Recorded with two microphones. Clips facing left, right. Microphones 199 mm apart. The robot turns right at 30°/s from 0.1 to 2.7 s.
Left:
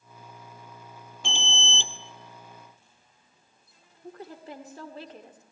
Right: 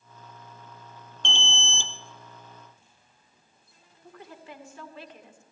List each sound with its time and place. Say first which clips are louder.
1.2 s an alarm: even; 5° left (ahead or behind), 0.8 m; by 1.9 s 20° left (ahead or behind), 0.8 m
4.0 s a woman speaking: left 4 dB; 35° left (ahead or behind), 1.7 m